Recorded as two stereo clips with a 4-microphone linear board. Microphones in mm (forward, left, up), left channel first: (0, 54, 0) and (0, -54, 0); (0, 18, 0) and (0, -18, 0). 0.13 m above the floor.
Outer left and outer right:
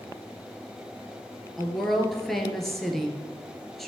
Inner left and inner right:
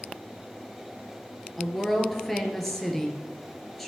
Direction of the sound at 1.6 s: Centre (ahead or behind).